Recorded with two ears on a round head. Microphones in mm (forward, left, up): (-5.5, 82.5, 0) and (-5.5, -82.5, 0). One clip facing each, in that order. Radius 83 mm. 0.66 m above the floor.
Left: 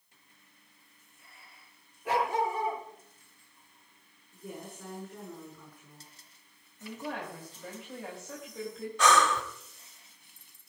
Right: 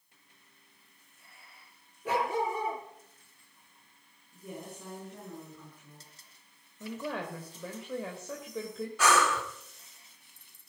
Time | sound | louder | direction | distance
2.0 | a dog barking | left 1 dB | 90° right | 5.5 m
4.3 | a woman speaking | even | 5° right (ahead or behind) | 8.5 m
6.8 | a woman speaking | right 2 dB | 70° right (ahead or behind) | 3 m
9.0 | breathing | left 2 dB | 5° right (ahead or behind) | 2 m